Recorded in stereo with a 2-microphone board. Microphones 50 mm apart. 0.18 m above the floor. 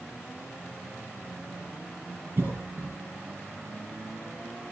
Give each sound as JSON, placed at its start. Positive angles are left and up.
{"t": 2.4, "sound": "a cough", "side_deg": -45, "distance_m": 4.0}